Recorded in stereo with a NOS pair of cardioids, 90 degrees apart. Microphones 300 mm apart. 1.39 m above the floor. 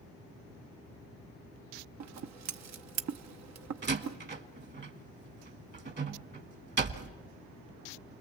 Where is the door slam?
35° right, 1.4 m.